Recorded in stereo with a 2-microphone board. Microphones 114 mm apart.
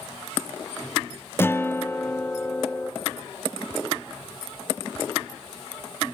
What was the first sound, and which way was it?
A guitar, 20° left (ahead or behind).